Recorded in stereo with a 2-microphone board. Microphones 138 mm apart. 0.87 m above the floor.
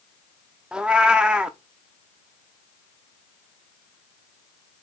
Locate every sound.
0.7 s a cat meowing: 5° right (ahead or behind), 0.6 m